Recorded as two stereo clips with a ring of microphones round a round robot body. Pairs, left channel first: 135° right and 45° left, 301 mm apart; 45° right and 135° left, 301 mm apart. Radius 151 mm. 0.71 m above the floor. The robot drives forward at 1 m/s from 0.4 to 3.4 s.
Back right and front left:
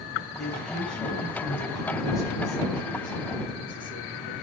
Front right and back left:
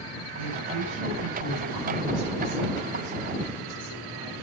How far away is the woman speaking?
About 6.5 m.